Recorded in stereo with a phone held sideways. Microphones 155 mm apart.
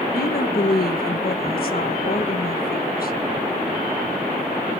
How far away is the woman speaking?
About 1.5 m.